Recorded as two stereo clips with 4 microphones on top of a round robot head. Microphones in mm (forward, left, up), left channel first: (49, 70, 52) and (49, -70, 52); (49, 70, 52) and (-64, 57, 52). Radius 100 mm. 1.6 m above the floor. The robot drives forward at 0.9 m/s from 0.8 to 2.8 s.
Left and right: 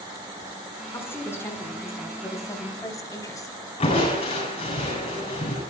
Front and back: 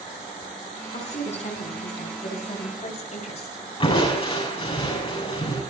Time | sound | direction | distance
0.9 | a woman speaking | 20° left | 6 m
3.8 | crushing | 40° left | 10 m